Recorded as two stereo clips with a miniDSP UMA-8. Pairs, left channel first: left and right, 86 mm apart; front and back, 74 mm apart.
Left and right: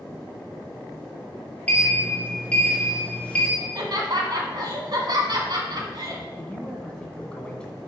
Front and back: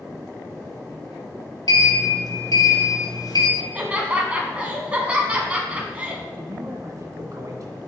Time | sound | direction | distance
1.7 | a sliding door | 15° left | 1.9 m
3.6 | laughter | 110° right | 1.9 m
6.3 | a man speaking | 165° left | 1.8 m